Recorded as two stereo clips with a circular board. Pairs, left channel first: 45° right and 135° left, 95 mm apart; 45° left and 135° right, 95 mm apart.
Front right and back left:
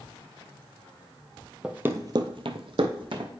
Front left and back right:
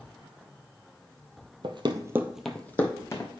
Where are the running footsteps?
145° right, 0.7 m; by 3.3 s 100° left, 1.4 m.